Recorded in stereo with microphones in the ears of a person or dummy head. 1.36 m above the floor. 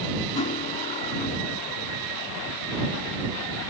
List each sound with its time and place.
0.3 s cutlery clinking: 35° left (ahead or behind)